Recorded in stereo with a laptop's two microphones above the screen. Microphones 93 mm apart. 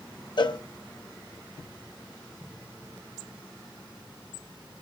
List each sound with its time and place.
0.4 s a cowbell: 55° left (ahead or behind), 0.7 m